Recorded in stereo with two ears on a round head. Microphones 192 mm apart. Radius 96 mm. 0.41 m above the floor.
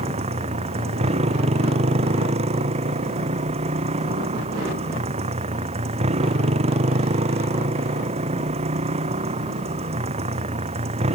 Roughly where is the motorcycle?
Right.